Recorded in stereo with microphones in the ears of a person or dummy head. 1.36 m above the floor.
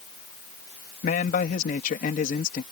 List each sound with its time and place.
1.0 s a man speaking: 50° left (ahead or behind)